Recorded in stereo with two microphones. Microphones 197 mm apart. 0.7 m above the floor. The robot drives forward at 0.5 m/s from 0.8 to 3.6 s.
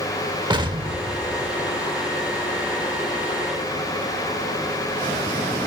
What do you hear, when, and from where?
0.5 s an explosion: 25° right (ahead or behind), 0.8 m; by 1.9 s 15° right (ahead or behind), 1.3 m